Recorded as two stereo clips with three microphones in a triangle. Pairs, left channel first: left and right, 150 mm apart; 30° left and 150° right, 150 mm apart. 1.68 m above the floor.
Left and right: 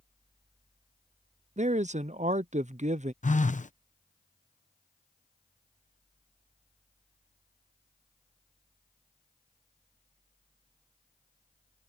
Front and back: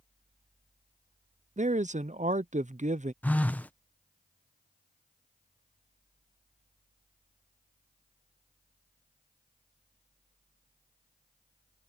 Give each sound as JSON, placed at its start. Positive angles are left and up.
{"t": 1.6, "sound": "a man speaking", "azimuth_deg": -120}
{"t": 3.2, "sound": "a phone buzzing", "azimuth_deg": 105}